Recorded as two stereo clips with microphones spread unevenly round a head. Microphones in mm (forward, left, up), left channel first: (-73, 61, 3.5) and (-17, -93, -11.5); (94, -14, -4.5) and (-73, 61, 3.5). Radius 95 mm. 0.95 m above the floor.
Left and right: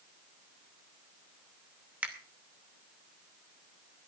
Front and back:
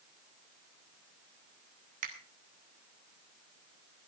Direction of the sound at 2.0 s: 150° right.